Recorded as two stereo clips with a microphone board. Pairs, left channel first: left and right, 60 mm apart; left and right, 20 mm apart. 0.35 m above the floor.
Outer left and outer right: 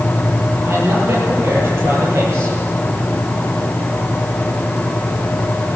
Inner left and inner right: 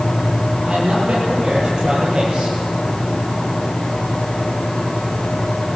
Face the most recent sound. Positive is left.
turn(degrees=-40)  # may be behind; listen again after turning